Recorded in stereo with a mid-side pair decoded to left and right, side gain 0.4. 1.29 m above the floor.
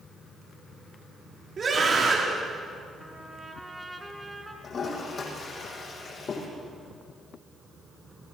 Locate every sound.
1.6 s a scream: 50° right, 3.5 m
3.0 s a trumpet: 10° right, 3.5 m
4.6 s a toilet flushing: 50° left, 8.5 m